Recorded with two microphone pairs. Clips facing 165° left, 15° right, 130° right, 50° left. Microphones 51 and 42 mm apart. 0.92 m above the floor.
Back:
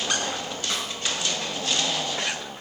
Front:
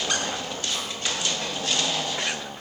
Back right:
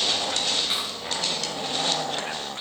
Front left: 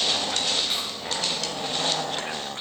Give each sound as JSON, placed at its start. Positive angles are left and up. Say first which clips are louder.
{"t": 0.7, "sound": "a snare drum", "louder": "back 3 dB, back right 1 dB", "azimuth_deg": 160, "distance_m": 4.5}